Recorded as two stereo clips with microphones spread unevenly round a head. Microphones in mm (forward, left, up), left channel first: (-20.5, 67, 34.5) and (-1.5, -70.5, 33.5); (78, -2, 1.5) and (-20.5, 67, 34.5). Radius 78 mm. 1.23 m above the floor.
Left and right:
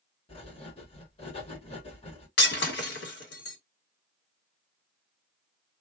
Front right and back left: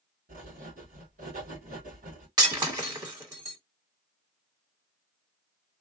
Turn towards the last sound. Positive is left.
turn(degrees=95)